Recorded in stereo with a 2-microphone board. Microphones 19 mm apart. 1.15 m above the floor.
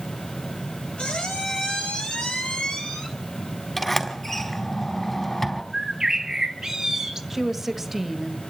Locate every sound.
1.0 s a squeak: 75° left (ahead or behind), 3 m
3.8 s a sliding door: 25° left (ahead or behind), 4 m
5.7 s a bird: 30° right (ahead or behind), 1.9 m
7.3 s a woman speaking: 5° right (ahead or behind), 1.5 m